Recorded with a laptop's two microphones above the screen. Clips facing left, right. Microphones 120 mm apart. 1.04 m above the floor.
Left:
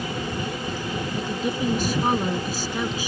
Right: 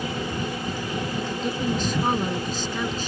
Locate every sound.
1.1 s a woman speaking: 10° left (ahead or behind)